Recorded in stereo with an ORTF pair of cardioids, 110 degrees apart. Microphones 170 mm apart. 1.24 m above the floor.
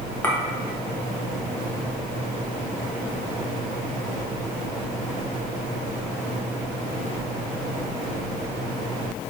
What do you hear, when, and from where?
0.2 s a clink: 10° left, 0.9 m